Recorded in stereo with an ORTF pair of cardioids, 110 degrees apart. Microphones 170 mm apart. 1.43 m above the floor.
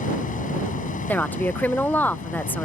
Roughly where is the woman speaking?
Ahead.